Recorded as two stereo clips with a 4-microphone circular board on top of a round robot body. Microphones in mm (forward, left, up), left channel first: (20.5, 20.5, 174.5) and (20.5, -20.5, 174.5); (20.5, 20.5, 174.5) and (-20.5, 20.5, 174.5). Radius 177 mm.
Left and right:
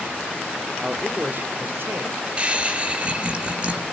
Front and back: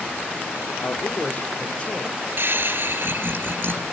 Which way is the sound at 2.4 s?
150° right.